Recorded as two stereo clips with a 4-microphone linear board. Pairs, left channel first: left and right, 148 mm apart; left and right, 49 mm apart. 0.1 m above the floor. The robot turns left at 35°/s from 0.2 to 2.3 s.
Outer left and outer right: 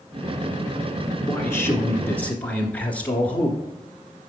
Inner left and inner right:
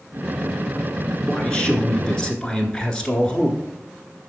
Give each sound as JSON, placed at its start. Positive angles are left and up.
{"t": 1.3, "sound": "a man speaking", "side_deg": 20, "distance_m": 1.1}